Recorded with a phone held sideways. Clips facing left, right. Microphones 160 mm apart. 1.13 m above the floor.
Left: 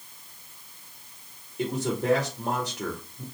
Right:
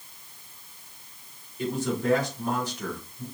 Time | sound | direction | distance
1.6 | a man speaking | 75° left (ahead or behind) | 2 m